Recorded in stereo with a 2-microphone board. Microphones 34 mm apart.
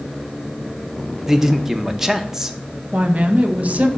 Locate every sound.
1.3 s a man speaking: 15° right (ahead or behind), 0.6 m
2.9 s a woman speaking: 45° right (ahead or behind), 0.7 m